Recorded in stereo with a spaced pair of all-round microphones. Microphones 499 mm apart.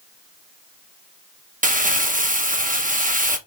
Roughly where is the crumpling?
Centre.